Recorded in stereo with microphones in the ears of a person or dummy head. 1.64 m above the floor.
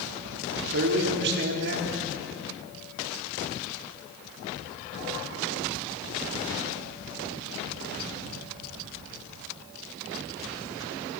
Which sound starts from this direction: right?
A man speaking, at 0.3 s.